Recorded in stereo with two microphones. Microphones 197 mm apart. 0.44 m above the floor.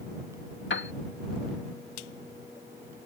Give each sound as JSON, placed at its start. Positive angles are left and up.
{"t": 0.7, "sound": "a piano", "side_deg": 75}